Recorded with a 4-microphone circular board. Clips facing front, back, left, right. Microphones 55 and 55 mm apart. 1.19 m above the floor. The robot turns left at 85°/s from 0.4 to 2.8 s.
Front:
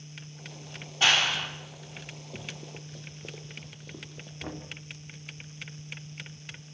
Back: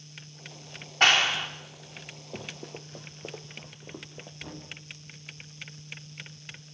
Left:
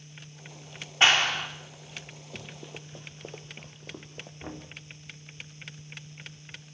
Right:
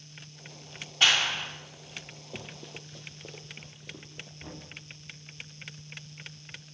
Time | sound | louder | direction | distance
1.0 | a clap | back 2 dB, left 3 dB | 150° left | 3 m
2.3 | running footsteps | back 3 dB, even | 160° right | 2.5 m
4.4 | knocking | front 5 dB, left 5 dB | 40° left | 2.5 m